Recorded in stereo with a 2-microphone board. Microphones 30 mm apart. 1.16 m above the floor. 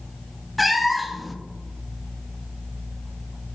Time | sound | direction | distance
0.6 | a cat meowing | centre (ahead or behind) | 0.5 m